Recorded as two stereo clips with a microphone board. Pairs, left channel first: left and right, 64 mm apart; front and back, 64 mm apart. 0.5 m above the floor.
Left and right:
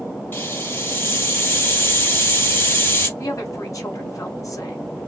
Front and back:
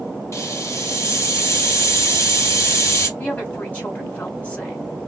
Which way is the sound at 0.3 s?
40° left.